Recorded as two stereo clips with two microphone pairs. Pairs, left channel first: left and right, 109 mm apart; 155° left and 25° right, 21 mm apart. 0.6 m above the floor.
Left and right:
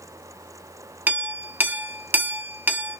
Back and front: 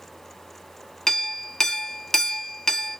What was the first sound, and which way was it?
A clink, 150° right.